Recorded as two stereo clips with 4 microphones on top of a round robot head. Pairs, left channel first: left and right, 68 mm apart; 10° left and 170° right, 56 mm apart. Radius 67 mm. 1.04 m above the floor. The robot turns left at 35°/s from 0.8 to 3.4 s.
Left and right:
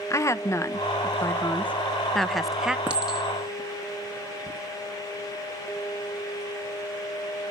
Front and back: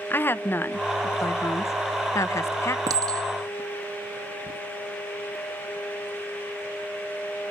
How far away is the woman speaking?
About 1.2 m.